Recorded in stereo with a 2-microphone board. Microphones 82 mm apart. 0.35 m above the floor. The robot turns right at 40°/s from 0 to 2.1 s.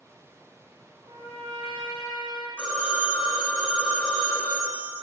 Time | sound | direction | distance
1.0 | a trumpet | 105° right | 0.5 m
2.6 | a phone ringing | 20° left (ahead or behind) | 0.7 m